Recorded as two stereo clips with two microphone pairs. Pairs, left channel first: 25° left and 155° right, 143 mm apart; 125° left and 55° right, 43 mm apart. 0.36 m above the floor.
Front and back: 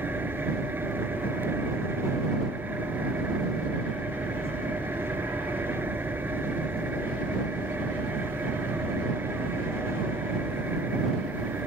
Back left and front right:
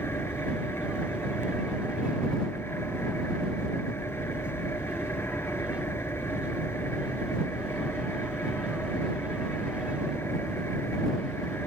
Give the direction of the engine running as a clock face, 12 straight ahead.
8 o'clock.